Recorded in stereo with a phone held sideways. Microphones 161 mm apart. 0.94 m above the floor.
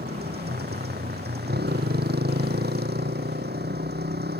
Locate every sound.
0.0 s a motorcycle: 90° right